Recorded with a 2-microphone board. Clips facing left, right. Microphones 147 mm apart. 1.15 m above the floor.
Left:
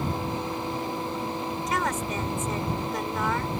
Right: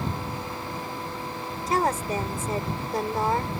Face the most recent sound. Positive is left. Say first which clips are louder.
# right 6 dB
turn(degrees=-35)  # may be behind; listen again after turning